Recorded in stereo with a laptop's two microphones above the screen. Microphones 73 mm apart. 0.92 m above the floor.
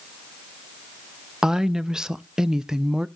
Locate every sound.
1.4 s a woman speaking: 5° right (ahead or behind), 0.6 m